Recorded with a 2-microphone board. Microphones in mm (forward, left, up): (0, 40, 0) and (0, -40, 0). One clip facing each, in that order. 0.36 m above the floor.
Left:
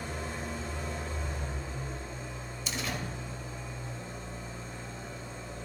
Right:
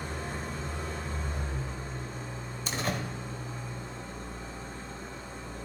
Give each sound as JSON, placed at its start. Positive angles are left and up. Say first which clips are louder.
{"t": 0.0, "sound": "an engine running", "louder": "right 1 dB", "side_deg": -55, "distance_m": 2.0}
{"t": 2.7, "sound": "a door slam", "louder": "right 4 dB", "side_deg": -45, "distance_m": 1.1}